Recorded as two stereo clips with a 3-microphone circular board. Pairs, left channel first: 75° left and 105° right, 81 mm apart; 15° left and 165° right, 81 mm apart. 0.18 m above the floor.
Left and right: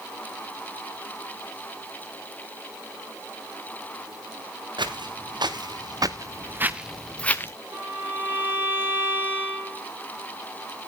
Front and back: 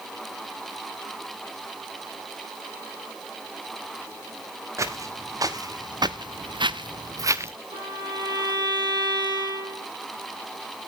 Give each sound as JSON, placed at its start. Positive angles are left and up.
{"t": 4.8, "sound": "footsteps", "azimuth_deg": -120, "distance_m": 3.0}
{"t": 7.7, "sound": "a violin", "azimuth_deg": -165, "distance_m": 10.0}